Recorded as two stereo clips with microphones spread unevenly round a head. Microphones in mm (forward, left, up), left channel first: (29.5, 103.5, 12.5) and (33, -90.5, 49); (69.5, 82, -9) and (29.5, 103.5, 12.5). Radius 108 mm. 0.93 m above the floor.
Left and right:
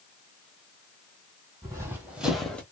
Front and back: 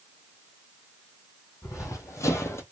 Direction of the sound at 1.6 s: 35° right.